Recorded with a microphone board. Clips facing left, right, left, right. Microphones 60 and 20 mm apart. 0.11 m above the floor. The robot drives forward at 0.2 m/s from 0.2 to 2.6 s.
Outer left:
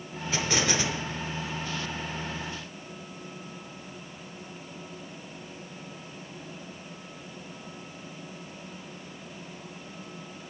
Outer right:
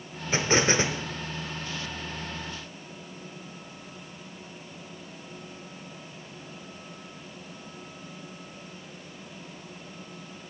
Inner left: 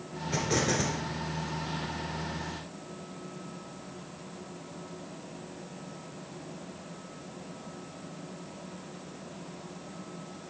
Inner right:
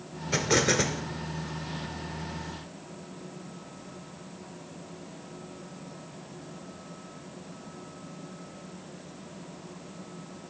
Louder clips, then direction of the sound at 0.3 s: Outer right 4 dB, inner right 4 dB; 30° right (ahead or behind).